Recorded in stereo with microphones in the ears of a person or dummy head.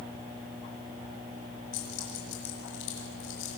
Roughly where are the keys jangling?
Left.